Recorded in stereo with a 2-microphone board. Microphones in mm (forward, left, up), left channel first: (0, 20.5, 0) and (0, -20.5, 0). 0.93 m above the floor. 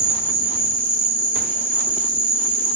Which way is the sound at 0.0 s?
50° left (ahead or behind).